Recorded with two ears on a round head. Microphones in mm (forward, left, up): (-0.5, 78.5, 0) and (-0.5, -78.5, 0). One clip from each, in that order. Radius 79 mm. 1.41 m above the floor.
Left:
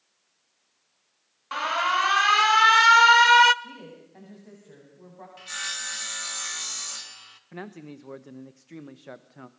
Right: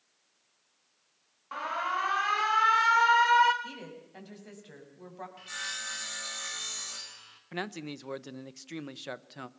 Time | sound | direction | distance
1.5 | an alarm | 70° left (ahead or behind) | 0.8 m
3.6 | a woman speaking | 65° right (ahead or behind) | 8 m
5.4 | sawing | 20° left (ahead or behind) | 1.8 m
7.5 | a man speaking | 70° right (ahead or behind) | 1.1 m